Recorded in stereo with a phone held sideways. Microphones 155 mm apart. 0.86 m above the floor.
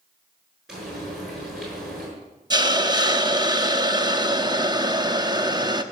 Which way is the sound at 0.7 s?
5° right (ahead or behind).